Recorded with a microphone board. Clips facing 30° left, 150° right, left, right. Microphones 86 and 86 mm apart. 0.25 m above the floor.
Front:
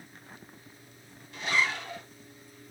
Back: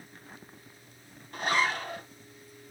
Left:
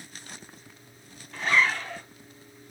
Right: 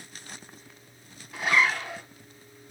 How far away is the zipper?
About 1.9 m.